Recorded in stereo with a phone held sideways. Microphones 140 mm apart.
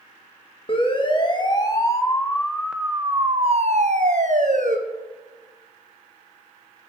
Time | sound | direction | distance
0.7 | a siren | 40° left (ahead or behind) | 2.5 m